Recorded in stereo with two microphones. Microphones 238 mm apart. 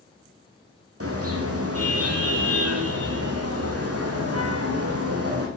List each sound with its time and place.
1.0 s a car horn: 70° right (ahead or behind), 4.5 m; by 5.5 s 75° right (ahead or behind), 4.5 m